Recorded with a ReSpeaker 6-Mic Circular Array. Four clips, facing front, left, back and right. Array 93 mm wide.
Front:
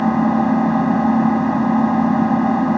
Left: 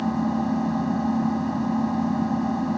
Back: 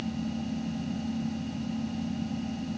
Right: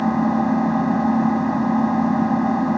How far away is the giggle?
No giggle in this recording.